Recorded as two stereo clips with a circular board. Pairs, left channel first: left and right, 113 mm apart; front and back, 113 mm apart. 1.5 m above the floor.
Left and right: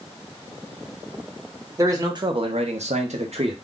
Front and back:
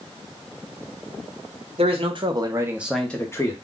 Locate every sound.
1.8 s a man speaking: 150° right, 0.9 m; by 3.5 s 60° right, 0.8 m